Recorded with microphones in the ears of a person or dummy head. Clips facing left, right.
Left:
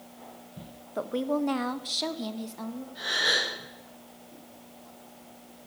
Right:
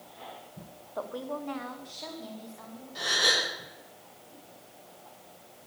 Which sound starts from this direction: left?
A woman speaking, at 0.9 s.